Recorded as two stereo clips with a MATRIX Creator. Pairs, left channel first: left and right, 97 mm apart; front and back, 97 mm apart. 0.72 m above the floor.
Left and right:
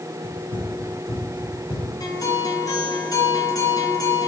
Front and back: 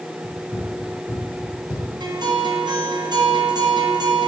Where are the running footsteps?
75° left, 2.5 m; by 1.9 s 45° left, 3 m.